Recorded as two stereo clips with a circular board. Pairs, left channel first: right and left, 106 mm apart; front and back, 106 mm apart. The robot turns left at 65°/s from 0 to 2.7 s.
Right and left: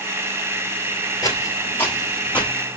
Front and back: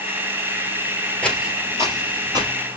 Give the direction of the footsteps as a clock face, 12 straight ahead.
2 o'clock.